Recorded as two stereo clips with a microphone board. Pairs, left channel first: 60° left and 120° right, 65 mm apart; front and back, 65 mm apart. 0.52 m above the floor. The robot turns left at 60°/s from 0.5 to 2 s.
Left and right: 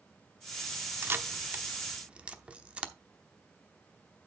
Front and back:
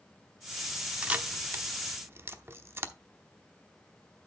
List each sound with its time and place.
1.0 s a camera shutter: 120° right, 0.9 m; by 2.9 s straight behind, 0.9 m